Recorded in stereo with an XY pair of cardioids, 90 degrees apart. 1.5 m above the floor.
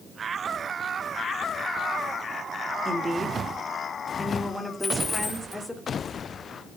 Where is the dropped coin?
30° left, 3.5 m.